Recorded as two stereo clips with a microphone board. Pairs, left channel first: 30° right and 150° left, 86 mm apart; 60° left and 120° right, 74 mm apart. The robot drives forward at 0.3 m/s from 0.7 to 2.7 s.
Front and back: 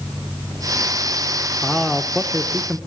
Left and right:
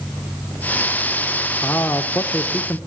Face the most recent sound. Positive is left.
turn(degrees=80)